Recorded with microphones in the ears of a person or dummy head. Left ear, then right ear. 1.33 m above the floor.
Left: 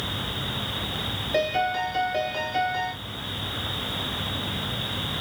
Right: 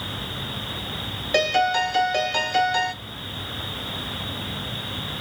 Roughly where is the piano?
Right.